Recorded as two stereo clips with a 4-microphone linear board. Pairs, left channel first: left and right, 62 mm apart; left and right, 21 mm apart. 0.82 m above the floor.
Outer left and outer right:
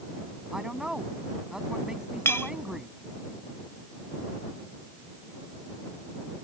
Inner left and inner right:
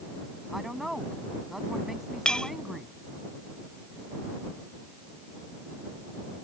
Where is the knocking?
I don't hear knocking.